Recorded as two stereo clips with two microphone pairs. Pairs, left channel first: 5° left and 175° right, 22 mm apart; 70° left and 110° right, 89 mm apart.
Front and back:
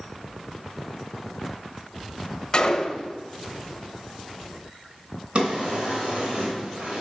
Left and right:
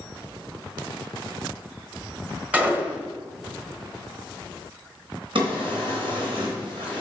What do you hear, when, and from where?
2.5 s a gunshot: 35° right, 1.0 m
5.3 s a drawer: 130° right, 3 m